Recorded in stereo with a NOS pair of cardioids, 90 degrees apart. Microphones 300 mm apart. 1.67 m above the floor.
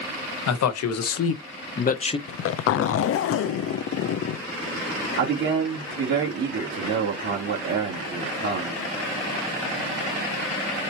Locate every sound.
0.5 s a man speaking: 65° left, 1.5 m; by 2.2 s 15° left, 0.8 m
2.3 s a zipper: 50° left, 0.6 m
5.2 s a man speaking: 65° right, 2.5 m